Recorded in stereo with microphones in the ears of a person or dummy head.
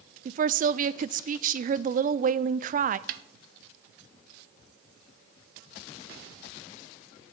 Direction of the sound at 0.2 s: 40° right (ahead or behind).